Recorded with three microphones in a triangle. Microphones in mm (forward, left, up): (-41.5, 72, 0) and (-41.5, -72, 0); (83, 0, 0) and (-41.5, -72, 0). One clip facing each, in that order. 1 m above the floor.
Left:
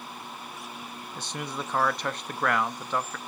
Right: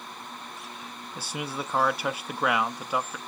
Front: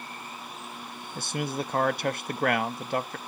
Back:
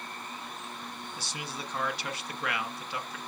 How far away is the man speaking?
About 0.9 m.